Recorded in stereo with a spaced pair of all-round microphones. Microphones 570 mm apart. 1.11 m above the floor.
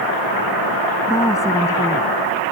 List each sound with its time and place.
1.1 s a woman speaking: 5° left (ahead or behind)